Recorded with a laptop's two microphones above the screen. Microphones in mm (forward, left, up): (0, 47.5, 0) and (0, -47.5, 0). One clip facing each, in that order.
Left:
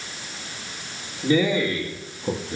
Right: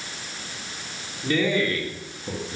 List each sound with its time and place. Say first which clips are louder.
1.2 s a man speaking: left 2 dB; 15° left (ahead or behind), 3 m; by 2.6 s 35° left (ahead or behind), 1.5 m